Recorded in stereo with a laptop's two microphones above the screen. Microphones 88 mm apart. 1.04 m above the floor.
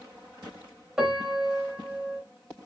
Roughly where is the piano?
Centre.